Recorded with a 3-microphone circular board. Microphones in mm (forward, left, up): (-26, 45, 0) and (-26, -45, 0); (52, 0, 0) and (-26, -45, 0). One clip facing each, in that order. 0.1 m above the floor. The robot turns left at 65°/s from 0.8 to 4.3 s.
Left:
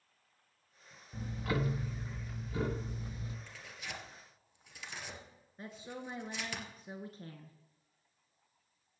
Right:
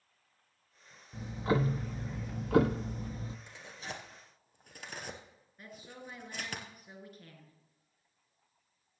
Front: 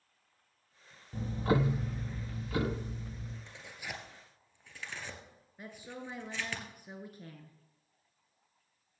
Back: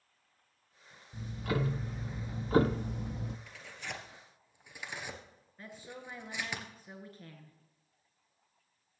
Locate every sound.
1.1 s ticking: 10° right, 0.9 m; by 3.4 s 155° right, 0.9 m
3.5 s tearing paper: 25° right, 1.5 m; by 6.6 s 80° right, 1.5 m
5.6 s a woman speaking: 85° left, 1.3 m